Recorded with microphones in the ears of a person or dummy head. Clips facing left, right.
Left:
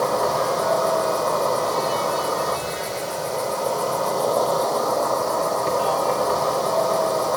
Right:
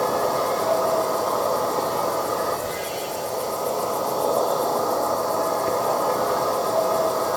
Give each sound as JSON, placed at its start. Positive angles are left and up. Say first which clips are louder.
{"t": 0.0, "sound": "an insect", "louder": "left 1 dB", "side_deg": 50, "distance_m": 2.0}